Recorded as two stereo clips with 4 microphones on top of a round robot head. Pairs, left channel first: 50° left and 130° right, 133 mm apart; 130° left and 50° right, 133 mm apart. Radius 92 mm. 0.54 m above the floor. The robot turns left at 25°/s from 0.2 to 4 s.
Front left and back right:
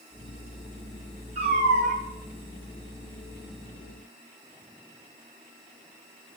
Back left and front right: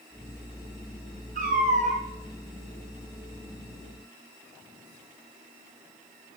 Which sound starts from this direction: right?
A cat meowing, at 1.4 s.